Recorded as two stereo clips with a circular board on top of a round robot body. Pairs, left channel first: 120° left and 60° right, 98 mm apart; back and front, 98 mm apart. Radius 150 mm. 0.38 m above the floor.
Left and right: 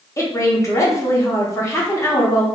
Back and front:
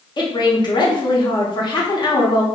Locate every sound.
0.2 s a woman speaking: 165° left, 1.1 m